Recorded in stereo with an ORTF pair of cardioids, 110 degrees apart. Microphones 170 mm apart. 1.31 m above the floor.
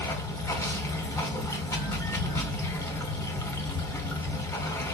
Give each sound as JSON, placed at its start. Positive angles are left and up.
{"t": 0.0, "sound": "running water", "azimuth_deg": 15, "distance_m": 2.5}